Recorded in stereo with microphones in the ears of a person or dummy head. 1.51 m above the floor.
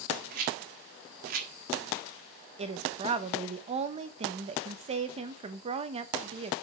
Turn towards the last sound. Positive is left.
turn(degrees=-30)  # may be behind; listen again after turning